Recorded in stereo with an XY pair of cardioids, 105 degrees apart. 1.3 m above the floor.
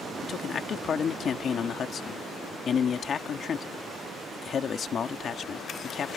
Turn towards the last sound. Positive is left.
turn(degrees=50)